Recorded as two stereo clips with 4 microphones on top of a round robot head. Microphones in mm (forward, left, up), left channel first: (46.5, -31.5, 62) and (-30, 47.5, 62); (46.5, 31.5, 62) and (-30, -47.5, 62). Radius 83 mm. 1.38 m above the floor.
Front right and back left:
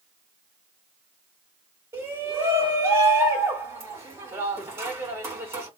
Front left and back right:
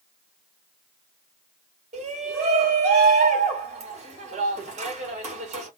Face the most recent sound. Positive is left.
turn(degrees=-160)